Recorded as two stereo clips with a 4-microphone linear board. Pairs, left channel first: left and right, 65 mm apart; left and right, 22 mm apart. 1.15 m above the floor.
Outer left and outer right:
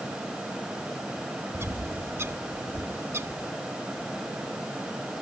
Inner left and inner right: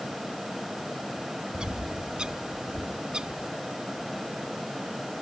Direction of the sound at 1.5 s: 45° right (ahead or behind).